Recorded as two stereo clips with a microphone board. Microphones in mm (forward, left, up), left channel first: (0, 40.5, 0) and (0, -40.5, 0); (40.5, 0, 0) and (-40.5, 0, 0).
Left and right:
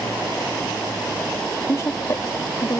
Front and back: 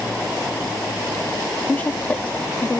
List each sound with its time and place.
1.7 s a woman speaking: 60° left